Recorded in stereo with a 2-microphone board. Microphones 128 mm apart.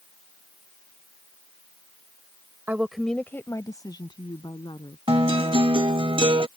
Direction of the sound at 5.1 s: 45° right (ahead or behind).